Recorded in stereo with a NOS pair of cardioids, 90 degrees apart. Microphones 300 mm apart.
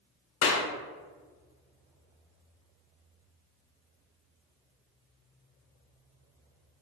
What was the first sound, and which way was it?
A clap, 50° left.